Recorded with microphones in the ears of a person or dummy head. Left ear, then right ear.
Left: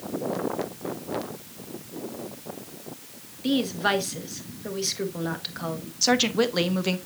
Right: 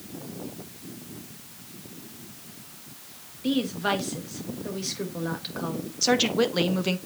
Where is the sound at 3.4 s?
10° left (ahead or behind), 1.6 m.